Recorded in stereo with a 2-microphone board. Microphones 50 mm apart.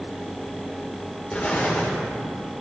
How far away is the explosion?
About 2.5 m.